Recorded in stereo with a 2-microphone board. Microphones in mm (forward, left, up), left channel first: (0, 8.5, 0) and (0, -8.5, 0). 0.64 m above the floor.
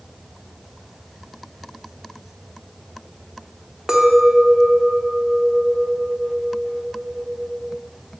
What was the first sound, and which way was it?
A clink, 50° right (ahead or behind).